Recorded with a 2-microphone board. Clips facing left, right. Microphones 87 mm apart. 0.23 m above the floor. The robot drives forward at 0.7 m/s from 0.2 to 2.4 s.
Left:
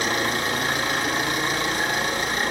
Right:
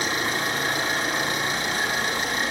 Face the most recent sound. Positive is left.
turn(degrees=45)  # may be behind; listen again after turning